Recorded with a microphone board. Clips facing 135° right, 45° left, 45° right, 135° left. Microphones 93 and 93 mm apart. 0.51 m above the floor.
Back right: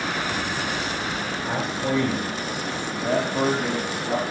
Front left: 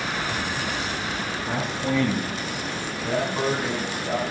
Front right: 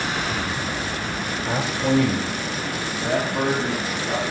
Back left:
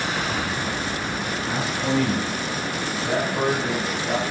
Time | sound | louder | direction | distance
1.4 | a man speaking | back right 1 dB, front right 4 dB | 70° right | 1.3 m